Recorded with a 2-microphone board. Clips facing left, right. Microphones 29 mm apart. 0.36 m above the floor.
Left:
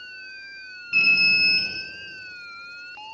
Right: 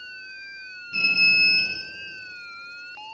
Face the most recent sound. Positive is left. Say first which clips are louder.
# left 1 dB
turn(degrees=60)  # may be behind; listen again after turning